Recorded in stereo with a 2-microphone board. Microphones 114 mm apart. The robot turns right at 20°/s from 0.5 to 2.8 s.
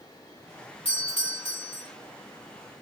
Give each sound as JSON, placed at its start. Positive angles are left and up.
{"t": 0.8, "sound": "a doorbell", "side_deg": 60, "distance_m": 3.5}